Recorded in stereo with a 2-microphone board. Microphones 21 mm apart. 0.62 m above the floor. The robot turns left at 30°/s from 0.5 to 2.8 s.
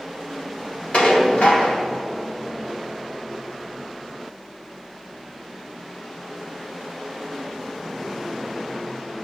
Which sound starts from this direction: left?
Dishes clattering, at 0.9 s.